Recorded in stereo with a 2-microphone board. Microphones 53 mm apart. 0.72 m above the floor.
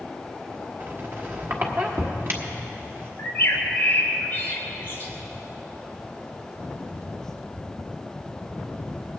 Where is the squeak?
45° right (ahead or behind), 1.2 m.